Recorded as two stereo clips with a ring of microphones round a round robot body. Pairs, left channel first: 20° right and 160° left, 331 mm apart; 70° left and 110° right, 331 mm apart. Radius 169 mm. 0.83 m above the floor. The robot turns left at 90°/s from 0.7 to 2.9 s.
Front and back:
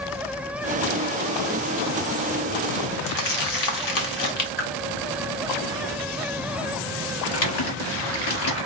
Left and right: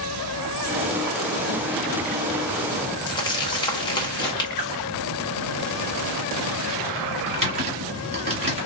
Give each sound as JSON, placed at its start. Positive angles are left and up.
{"t": 3.1, "sound": "crumpling", "azimuth_deg": -10, "distance_m": 1.3}
{"t": 4.6, "sound": "a whoosh", "azimuth_deg": -45, "distance_m": 2.5}
{"t": 7.3, "sound": "typing on a keyboard", "azimuth_deg": -40, "distance_m": 1.9}